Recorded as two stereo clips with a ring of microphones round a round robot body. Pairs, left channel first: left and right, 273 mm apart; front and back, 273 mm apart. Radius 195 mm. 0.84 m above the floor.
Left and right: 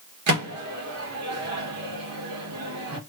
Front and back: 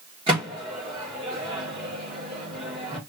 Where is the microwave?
105° right, 0.9 m.